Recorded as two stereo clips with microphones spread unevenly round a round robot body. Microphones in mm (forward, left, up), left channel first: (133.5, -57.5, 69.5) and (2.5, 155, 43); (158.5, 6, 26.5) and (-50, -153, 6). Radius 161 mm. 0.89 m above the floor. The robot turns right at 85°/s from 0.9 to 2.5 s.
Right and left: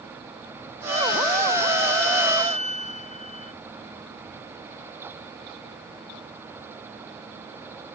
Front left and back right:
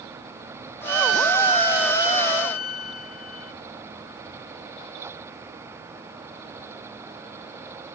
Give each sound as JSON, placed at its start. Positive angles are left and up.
{"t": 0.9, "sound": "a violin", "azimuth_deg": -130, "distance_m": 0.9}